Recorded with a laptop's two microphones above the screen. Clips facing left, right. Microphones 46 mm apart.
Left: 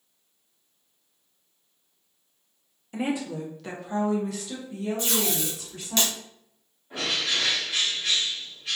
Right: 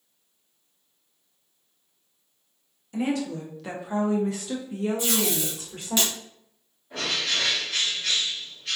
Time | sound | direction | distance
2.9 | a woman speaking | 20° left (ahead or behind) | 0.7 m
5.0 | tape being pulled | 15° right (ahead or behind) | 1.5 m
6.9 | a bird | 15° left (ahead or behind) | 1.8 m